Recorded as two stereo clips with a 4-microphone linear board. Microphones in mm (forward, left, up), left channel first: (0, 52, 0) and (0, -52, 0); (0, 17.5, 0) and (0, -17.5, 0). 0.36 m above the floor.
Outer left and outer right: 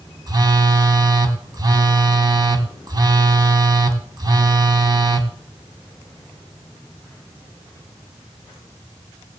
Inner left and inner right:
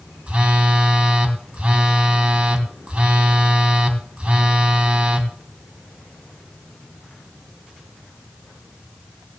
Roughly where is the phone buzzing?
Right.